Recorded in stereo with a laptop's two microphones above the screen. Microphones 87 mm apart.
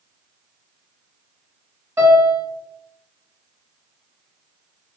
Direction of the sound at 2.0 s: 30° right (ahead or behind).